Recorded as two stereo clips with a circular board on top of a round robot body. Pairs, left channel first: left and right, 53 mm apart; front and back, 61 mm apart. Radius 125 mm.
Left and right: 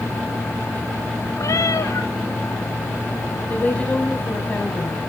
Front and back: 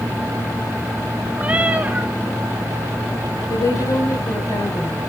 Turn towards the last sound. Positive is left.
turn(degrees=25)